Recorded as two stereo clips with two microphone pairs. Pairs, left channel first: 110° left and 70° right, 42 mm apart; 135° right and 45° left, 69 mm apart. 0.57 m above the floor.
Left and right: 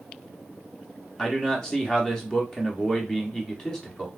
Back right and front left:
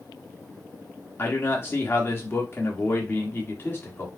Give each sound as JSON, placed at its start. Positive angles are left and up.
{"t": 1.2, "sound": "a man speaking", "azimuth_deg": 180, "distance_m": 1.2}